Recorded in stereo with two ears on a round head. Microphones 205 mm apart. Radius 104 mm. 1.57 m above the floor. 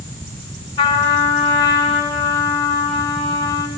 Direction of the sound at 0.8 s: 20° left (ahead or behind).